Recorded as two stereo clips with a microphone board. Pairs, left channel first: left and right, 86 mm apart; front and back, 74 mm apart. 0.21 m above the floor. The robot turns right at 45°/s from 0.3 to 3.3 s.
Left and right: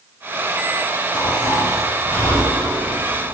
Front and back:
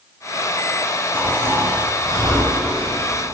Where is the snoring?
110° left, 4.5 m; by 3.4 s 150° right, 4.5 m.